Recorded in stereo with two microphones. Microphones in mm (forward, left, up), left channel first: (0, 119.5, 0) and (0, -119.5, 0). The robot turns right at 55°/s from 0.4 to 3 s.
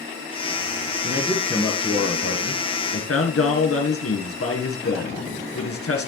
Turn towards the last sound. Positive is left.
turn(degrees=90)